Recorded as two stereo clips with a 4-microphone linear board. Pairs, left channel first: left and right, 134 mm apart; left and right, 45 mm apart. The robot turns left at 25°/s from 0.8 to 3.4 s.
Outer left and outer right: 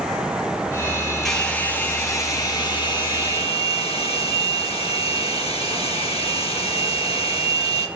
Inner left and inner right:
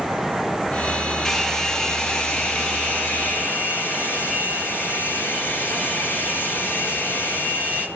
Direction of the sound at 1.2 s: 175° left.